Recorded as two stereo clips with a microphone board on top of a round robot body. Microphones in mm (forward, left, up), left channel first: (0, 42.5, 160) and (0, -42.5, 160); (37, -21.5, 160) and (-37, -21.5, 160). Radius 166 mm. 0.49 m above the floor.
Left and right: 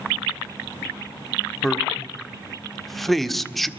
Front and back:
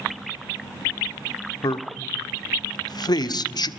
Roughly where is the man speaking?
Ahead.